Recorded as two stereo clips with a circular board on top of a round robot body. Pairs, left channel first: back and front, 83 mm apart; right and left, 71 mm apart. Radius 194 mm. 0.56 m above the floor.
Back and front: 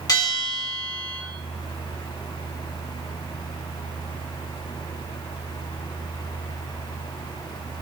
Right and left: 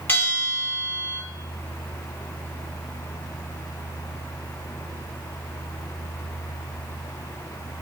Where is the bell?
150° right, 1.6 m.